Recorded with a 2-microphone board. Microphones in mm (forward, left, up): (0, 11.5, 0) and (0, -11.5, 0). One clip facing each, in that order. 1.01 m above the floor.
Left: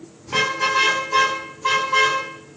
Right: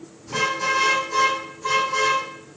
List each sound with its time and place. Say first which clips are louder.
0.3 s a car horn: left 2 dB; 30° left (ahead or behind), 9.5 m; by 2.2 s 35° left (ahead or behind), 12 m